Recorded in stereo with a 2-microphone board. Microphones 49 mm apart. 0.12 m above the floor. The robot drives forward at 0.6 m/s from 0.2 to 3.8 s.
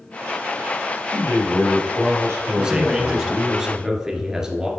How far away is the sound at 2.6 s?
About 1.1 m.